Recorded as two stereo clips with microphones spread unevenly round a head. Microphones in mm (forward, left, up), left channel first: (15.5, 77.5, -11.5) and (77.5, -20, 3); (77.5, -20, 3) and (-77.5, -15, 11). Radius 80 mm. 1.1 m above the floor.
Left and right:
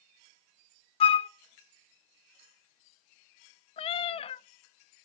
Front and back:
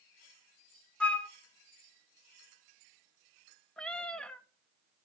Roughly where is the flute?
Left.